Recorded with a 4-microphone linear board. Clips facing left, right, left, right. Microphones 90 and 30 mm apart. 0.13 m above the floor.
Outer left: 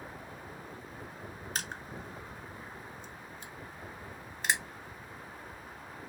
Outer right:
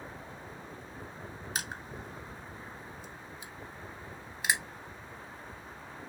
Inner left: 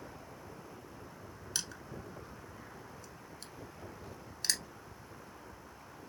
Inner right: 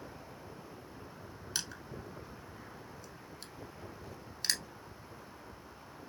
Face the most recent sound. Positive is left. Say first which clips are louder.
# outer right 1 dB, even
turn(degrees=-10)  # may be behind; listen again after turning